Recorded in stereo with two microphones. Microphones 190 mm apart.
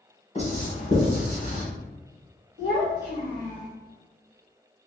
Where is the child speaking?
50° right (ahead or behind), 1.4 m.